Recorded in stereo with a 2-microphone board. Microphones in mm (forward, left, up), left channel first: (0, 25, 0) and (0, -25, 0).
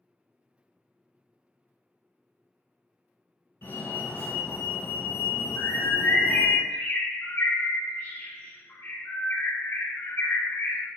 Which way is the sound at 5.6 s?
55° left (ahead or behind).